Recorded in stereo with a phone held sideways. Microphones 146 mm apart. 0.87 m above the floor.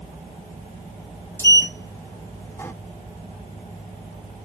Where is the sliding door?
15° left (ahead or behind), 0.6 m.